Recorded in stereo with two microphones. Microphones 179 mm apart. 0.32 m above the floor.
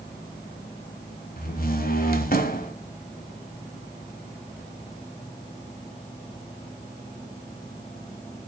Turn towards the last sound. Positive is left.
turn(degrees=55)  # may be behind; listen again after turning